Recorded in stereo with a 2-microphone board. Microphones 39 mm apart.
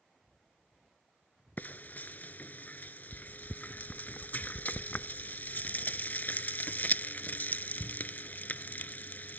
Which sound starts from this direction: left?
Frying, at 1.6 s.